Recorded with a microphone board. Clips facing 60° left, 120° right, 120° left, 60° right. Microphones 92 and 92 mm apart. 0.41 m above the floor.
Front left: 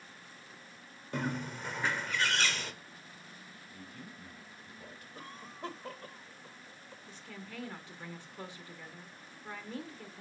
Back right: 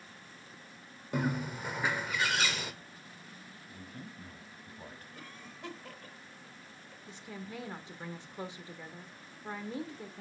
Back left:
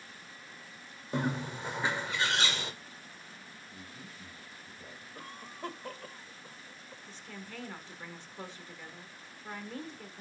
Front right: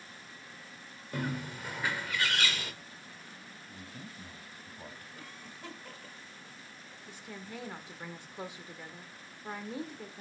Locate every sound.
1.1 s a bird: 165° left, 1.3 m
3.7 s a man speaking: 75° right, 2.5 m
5.2 s a cough: 100° left, 1.3 m
7.1 s a woman speaking: 110° right, 1.3 m